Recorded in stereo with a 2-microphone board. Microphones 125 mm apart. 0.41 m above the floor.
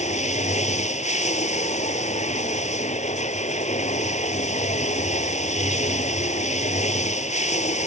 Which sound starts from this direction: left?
Running water, at 0.0 s.